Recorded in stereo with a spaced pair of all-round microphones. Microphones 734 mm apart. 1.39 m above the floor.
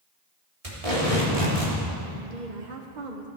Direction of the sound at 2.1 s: 80° right.